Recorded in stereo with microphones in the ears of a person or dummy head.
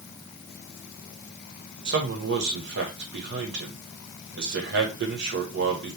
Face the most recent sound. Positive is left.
turn(degrees=-60)  # may be behind; listen again after turning